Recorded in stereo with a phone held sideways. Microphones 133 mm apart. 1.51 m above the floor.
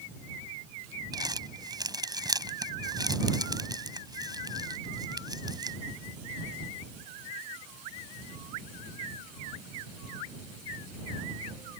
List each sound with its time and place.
1.1 s crumpling: 30° right (ahead or behind)